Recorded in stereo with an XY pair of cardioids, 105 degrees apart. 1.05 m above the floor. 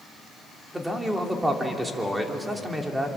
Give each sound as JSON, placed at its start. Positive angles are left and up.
{"t": 0.7, "sound": "a man speaking", "azimuth_deg": -10, "distance_m": 3.0}